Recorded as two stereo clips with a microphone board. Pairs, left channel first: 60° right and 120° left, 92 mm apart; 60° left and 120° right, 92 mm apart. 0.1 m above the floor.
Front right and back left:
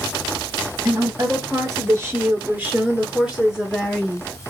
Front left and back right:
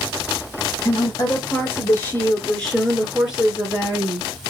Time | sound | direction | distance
0.8 | a woman speaking | 85° left | 1.6 m